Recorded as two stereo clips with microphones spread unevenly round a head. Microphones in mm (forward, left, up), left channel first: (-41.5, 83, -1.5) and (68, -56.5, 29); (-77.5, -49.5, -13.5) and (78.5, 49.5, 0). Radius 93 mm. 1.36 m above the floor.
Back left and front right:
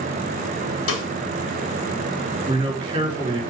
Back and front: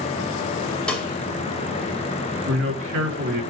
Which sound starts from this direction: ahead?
A man speaking, at 2.5 s.